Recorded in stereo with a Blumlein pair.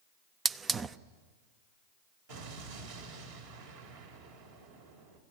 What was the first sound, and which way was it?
A hiss, 20° right.